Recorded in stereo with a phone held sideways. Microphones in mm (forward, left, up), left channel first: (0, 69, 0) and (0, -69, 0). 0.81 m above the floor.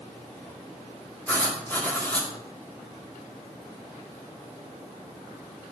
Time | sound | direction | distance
1.3 | writing | 15° left (ahead or behind) | 2.5 m